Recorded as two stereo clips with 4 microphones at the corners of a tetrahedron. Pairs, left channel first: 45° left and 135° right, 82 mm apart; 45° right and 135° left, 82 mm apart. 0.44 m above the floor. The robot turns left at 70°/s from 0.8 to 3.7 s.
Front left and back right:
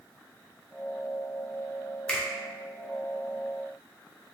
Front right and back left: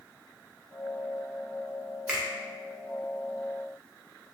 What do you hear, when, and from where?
2.1 s a finger snap: 105° left, 0.6 m; by 2.2 s 95° left, 0.6 m